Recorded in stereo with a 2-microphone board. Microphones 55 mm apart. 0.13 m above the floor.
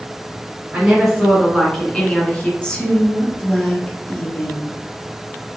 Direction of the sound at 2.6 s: 20° left (ahead or behind).